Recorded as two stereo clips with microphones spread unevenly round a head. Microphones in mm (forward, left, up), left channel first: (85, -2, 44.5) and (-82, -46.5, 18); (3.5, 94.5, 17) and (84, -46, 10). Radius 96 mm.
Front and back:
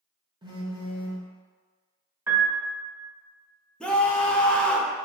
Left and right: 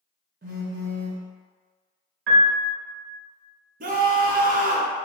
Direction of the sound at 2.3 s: 85° right.